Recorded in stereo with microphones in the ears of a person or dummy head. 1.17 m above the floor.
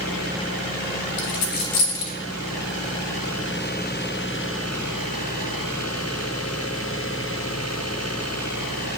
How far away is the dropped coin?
About 0.6 m.